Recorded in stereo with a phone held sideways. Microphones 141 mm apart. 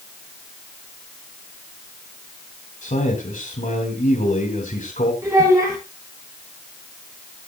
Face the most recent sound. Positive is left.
turn(degrees=-25)  # may be behind; listen again after turning